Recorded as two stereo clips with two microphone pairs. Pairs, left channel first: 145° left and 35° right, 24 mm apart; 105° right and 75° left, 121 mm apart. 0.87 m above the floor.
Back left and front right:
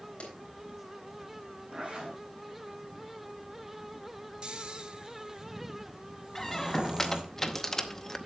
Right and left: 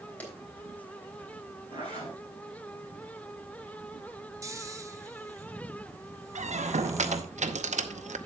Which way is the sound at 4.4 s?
20° left.